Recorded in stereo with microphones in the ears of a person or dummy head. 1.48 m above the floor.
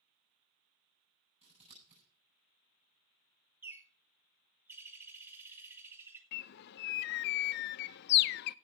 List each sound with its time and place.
1.4 s scissors: 30° right (ahead or behind), 7 m
3.6 s a bird: 15° right (ahead or behind), 2 m
6.3 s a bird: 60° left (ahead or behind), 0.6 m